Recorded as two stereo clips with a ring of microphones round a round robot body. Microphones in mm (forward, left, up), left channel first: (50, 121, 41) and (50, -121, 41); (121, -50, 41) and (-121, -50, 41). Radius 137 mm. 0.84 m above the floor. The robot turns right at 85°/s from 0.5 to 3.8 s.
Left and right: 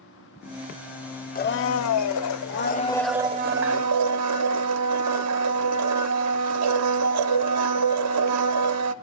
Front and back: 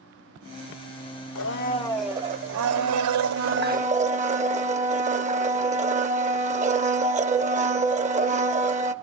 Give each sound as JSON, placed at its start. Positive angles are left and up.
{"t": 1.4, "sound": "a blender", "azimuth_deg": 35, "distance_m": 1.3}